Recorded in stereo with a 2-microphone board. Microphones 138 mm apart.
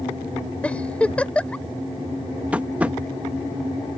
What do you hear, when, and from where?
0.6 s a giggle: 10° left (ahead or behind)
2.5 s tapping: 10° right (ahead or behind)